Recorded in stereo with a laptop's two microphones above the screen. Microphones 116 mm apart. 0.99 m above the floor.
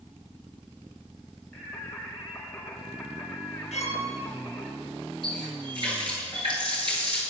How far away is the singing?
About 3 m.